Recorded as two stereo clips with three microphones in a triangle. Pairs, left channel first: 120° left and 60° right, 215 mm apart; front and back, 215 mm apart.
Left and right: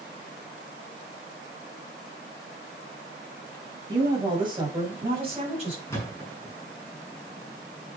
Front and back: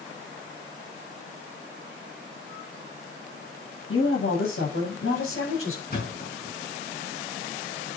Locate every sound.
3.9 s a woman speaking: 10° left, 8 m; by 5.8 s straight ahead, 8 m
5.9 s a thud: 45° left, 5 m